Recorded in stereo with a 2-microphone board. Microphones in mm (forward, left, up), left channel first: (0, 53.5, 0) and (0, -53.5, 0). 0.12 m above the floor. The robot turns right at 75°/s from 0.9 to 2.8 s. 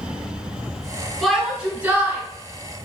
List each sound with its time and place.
1.2 s a shout: 5° left (ahead or behind), 1.5 m; by 2.2 s 20° right (ahead or behind), 1.5 m